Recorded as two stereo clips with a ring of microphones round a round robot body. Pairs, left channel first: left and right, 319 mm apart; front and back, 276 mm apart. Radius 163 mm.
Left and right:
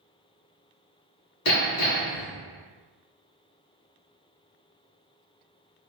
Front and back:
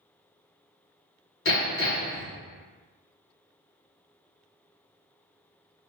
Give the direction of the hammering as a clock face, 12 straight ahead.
10 o'clock.